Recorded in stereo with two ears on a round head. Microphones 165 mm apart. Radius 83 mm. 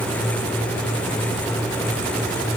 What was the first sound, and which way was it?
Only background noise.